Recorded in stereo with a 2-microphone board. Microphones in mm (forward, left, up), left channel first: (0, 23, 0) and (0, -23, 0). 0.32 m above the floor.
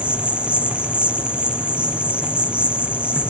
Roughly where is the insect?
Right.